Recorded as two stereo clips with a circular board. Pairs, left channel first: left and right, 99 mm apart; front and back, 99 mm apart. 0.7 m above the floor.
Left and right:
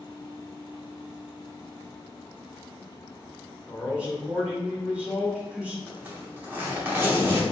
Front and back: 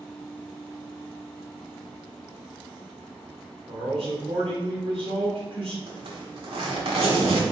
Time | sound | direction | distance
3.7 | a man speaking | 165° right | 1.8 m
5.9 | a zipper | 160° right | 1.2 m